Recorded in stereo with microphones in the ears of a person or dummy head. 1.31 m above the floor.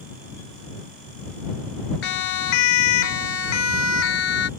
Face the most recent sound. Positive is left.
turn(degrees=85)